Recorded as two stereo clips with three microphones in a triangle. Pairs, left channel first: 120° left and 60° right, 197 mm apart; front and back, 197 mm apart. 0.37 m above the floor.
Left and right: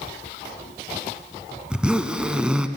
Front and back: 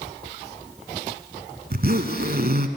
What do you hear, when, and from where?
1.7 s a zipper: 145° right, 0.6 m